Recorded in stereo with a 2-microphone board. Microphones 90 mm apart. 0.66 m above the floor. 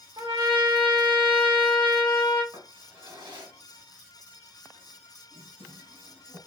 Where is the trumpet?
65° right (ahead or behind), 1.6 m.